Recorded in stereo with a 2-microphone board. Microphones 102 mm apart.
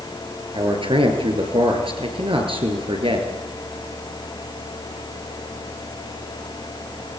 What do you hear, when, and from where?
0.5 s a man speaking: 60° right (ahead or behind), 5.5 m